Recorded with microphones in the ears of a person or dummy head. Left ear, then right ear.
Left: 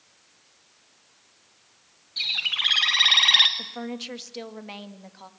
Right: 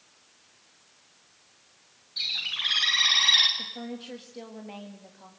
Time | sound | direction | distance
2.2 | a bird | 35° left (ahead or behind) | 1.6 m
3.6 | a woman speaking | 45° left (ahead or behind) | 1.8 m